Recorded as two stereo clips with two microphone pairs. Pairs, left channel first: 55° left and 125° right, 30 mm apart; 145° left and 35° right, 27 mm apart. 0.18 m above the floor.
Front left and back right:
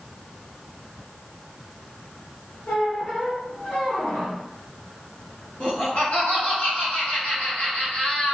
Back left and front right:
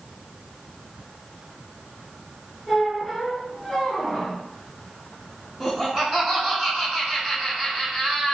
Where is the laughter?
60° left, 1.6 m.